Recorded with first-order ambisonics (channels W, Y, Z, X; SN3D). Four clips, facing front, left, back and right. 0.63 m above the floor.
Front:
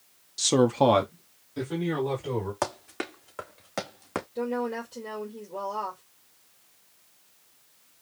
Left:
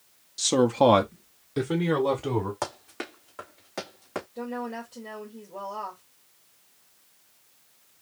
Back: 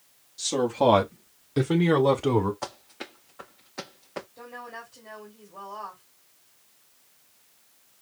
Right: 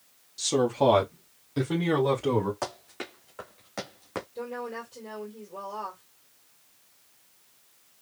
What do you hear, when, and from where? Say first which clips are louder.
0.4 s a man speaking: left 3 dB, front 2 dB; 30° left, 0.9 m; by 2.5 s 175° left, 1.7 m
2.6 s running footsteps: left 1 dB, front 6 dB; 20° left, 2.5 m; by 4.2 s straight ahead, 3 m
4.3 s a woman speaking: left 3 dB, front 11 dB; straight ahead, 2 m